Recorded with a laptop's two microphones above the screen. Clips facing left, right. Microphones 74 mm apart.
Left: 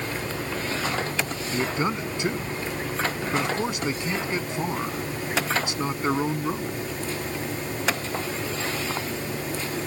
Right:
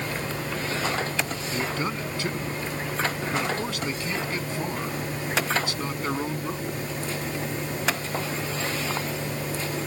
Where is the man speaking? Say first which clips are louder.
Left 3 dB; 20° left (ahead or behind).